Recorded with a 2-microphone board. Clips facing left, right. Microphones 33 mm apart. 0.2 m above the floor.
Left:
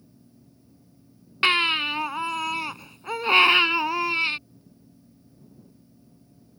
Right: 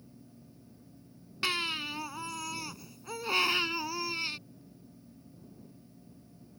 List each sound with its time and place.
1.4 s a baby crying: 45° left (ahead or behind)